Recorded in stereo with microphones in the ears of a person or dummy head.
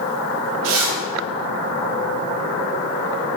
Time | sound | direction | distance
0.6 | a zipper | 80° right | 2.5 m